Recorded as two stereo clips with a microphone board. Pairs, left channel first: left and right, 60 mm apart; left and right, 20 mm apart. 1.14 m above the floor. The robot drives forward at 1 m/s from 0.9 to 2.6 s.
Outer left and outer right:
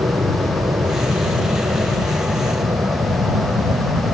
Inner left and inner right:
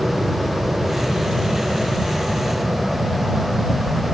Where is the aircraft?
75° right (ahead or behind).